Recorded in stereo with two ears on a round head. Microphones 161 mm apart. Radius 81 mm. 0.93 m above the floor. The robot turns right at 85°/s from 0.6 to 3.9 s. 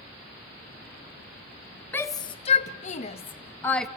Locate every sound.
1.9 s a shout: 10° left (ahead or behind), 0.9 m; by 3.9 s centre (ahead or behind), 0.9 m